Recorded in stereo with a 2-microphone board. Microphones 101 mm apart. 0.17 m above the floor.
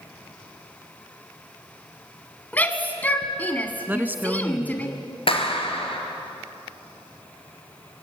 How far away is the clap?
About 3 m.